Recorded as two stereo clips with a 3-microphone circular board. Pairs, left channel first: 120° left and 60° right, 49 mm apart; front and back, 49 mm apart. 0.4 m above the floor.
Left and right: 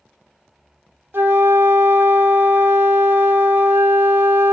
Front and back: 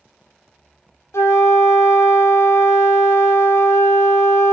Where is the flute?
20° right, 0.6 m.